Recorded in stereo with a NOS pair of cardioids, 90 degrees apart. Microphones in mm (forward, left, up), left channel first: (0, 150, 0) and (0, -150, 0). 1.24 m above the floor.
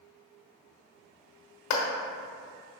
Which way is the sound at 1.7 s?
65° left.